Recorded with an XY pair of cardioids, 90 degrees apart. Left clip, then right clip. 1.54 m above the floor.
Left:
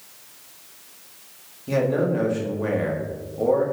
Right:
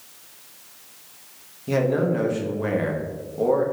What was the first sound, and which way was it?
A man speaking, 20° right.